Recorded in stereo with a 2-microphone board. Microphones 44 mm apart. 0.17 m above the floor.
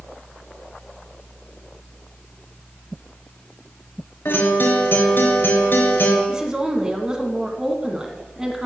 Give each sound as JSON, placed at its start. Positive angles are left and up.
{"t": 4.2, "sound": "a guitar", "side_deg": 50, "distance_m": 3.0}
{"t": 6.3, "sound": "a woman speaking", "side_deg": -20, "distance_m": 1.7}